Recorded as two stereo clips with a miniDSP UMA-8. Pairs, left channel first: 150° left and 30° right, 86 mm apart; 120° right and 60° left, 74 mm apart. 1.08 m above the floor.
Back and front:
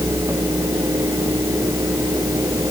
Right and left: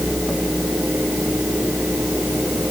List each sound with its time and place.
Only background noise.